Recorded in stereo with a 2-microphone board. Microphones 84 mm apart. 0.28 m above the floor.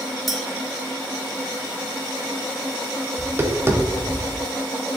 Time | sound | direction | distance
0.3 | a clink | centre (ahead or behind) | 0.8 m
3.2 | tapping | 30° right (ahead or behind) | 0.6 m